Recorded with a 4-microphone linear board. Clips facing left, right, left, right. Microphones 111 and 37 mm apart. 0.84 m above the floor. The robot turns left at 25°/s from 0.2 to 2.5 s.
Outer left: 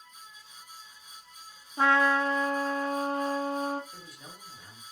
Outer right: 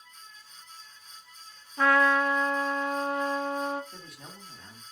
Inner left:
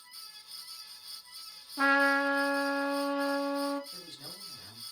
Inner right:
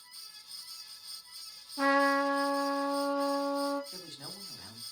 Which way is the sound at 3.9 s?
75° right (ahead or behind).